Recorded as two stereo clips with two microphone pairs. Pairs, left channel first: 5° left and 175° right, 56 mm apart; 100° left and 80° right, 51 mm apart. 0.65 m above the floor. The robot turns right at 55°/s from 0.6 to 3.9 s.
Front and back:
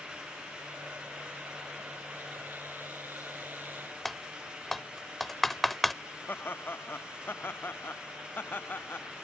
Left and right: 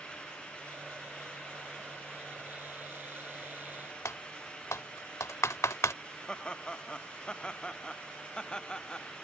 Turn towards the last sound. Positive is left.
turn(degrees=35)